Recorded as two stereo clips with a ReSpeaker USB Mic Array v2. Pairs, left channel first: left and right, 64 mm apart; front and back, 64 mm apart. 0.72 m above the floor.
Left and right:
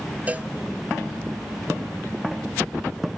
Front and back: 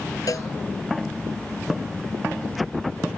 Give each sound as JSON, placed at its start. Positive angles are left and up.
{"t": 0.3, "sound": "a cowbell", "azimuth_deg": -25}